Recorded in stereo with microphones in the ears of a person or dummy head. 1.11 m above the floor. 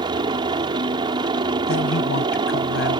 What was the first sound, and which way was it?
A helicopter, 20° right (ahead or behind).